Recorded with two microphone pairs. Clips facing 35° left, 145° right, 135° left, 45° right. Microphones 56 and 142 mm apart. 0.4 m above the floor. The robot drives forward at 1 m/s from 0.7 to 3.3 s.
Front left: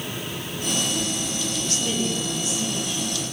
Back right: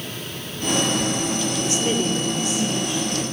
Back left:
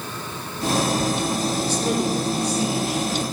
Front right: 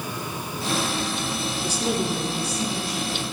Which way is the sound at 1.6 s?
95° right.